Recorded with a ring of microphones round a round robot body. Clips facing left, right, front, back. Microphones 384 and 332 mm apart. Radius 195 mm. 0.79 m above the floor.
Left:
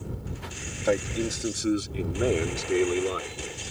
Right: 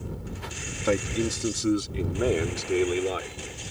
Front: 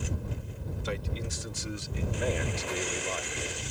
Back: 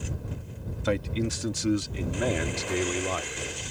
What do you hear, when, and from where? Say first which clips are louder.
0.8 s a man speaking: right 1 dB, back 10 dB; 165° right; by 3.4 s 175° left